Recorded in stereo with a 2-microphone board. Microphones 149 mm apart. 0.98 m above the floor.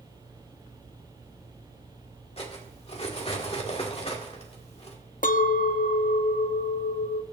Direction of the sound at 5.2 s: 65° left (ahead or behind).